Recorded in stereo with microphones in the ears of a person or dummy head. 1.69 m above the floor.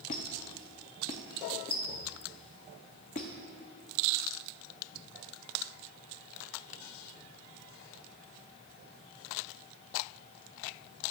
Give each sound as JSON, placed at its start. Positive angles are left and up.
{"t": 0.1, "sound": "a squeak", "side_deg": 25, "distance_m": 0.6}